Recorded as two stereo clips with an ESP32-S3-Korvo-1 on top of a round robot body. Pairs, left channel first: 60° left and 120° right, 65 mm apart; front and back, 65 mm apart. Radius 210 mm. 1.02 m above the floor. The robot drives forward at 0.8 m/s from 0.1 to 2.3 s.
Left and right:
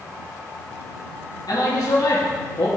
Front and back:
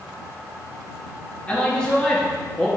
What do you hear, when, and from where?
1.5 s a man speaking: 70° left, 3 m; by 2.7 s 85° left, 2.5 m